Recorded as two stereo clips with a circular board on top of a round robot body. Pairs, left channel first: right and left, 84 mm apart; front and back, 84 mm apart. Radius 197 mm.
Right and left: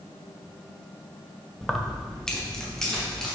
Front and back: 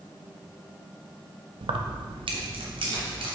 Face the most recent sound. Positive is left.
turn(degrees=-175)